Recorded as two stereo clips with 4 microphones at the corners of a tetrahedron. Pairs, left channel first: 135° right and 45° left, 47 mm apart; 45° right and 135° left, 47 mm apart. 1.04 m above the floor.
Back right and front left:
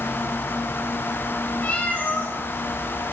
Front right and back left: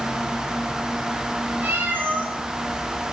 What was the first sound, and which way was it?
A cat meowing, straight behind.